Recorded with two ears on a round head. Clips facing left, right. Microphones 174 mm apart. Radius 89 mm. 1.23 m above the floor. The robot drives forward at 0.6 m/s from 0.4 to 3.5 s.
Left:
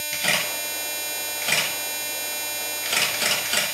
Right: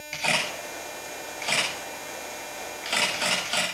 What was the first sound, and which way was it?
A camera shutter, 15° left (ahead or behind).